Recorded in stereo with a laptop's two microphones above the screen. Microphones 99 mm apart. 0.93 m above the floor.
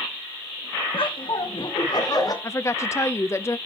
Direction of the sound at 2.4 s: 30° left (ahead or behind).